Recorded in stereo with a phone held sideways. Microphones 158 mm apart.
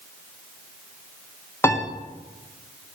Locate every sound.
1.6 s a piano: 15° left (ahead or behind), 0.7 m